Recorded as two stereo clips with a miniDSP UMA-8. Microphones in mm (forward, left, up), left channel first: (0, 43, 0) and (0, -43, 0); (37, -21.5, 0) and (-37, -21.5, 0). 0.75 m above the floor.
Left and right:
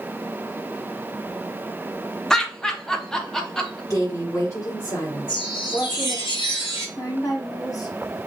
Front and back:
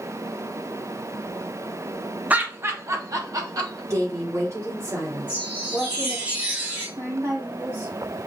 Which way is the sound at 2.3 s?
165° left.